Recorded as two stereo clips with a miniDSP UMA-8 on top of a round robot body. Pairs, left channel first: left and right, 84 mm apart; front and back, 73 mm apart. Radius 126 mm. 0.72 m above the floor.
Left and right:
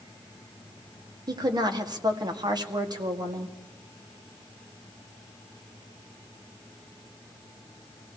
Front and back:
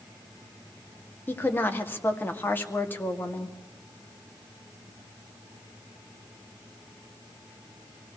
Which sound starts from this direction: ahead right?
A woman speaking, at 1.3 s.